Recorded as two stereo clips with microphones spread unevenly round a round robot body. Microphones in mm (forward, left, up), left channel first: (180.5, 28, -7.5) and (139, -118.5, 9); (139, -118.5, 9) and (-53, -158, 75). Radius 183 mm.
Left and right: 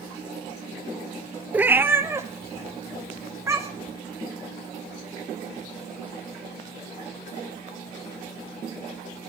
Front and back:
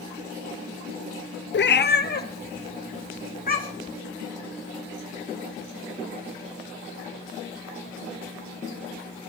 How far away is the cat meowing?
About 0.9 m.